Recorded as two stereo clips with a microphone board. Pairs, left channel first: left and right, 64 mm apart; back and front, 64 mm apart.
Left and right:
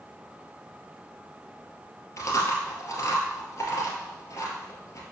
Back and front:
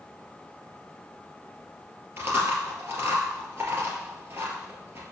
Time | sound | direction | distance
2.2 | chewing | 50° left | 2 m